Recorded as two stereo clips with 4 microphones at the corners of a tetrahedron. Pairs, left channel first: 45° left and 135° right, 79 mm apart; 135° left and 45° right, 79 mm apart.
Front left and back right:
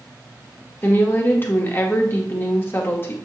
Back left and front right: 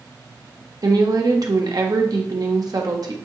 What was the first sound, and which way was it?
A woman speaking, 15° right.